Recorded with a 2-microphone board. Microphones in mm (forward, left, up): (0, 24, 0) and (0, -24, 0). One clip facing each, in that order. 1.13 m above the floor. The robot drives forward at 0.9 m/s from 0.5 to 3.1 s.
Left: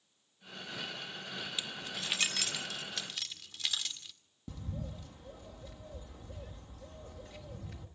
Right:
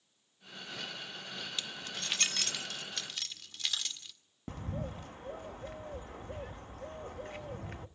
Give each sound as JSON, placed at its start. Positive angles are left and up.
{"t": 1.6, "sound": "keys jangling", "side_deg": 10, "distance_m": 0.5}
{"t": 4.5, "sound": "a bird", "side_deg": -50, "distance_m": 1.1}